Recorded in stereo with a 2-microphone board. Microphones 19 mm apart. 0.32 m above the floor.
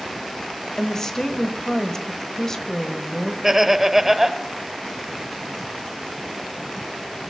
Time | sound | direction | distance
0.8 | a woman speaking | 25° left (ahead or behind) | 1.2 m
3.4 | laughter | 15° right (ahead or behind) | 0.9 m